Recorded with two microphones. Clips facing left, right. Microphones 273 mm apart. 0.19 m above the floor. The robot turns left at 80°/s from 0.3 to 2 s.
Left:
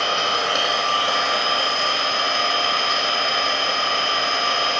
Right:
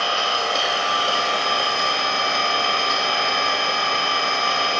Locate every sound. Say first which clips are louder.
0.0 s an engine running: left 1 dB; 30° left, 0.8 m; by 4.8 s 105° right, 0.8 m